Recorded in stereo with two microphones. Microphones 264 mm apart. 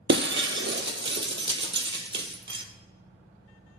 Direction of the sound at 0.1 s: 45° right (ahead or behind).